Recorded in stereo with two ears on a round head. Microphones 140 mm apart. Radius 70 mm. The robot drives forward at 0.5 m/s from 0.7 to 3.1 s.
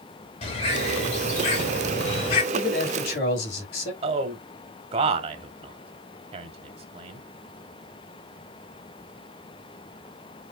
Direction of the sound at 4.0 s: 40° right (ahead or behind).